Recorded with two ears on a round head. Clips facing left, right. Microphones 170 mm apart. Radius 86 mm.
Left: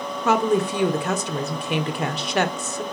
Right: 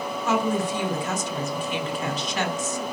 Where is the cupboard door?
No cupboard door in this recording.